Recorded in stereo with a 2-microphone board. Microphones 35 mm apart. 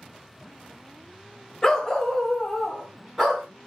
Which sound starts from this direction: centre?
A dog barking, at 1.6 s.